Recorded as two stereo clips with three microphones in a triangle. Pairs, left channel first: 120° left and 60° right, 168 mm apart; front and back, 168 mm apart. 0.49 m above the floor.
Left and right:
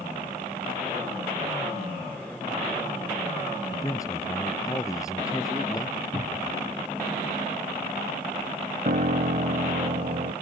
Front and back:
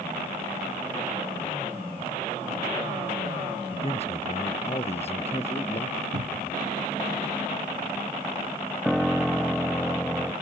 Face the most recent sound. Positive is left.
turn(degrees=-90)